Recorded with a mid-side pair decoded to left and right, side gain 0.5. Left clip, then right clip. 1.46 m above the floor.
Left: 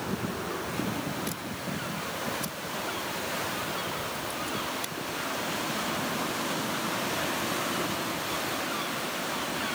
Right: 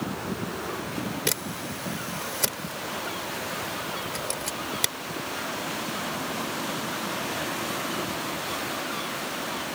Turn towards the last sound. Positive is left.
turn(degrees=-65)